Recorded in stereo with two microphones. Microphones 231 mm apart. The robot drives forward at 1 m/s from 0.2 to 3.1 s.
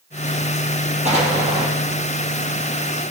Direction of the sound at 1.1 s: 30° right (ahead or behind).